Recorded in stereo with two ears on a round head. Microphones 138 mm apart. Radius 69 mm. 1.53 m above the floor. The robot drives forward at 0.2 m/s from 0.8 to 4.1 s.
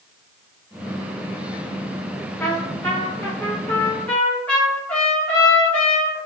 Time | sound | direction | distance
2.4 | a trumpet | 15° left (ahead or behind) | 0.7 m